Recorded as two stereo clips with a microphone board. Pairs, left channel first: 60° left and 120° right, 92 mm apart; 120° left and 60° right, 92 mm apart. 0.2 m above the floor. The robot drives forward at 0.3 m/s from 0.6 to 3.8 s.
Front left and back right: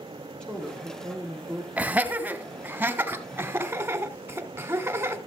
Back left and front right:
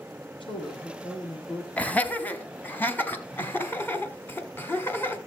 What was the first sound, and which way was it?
A woman speaking, 140° left.